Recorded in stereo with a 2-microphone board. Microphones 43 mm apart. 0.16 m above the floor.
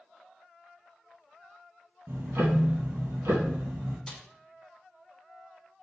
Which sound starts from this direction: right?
Ticking, at 2.1 s.